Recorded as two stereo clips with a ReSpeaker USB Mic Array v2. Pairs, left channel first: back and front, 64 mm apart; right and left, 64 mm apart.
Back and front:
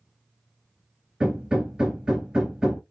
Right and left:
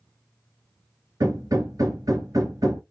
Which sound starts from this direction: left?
Hammering, at 1.2 s.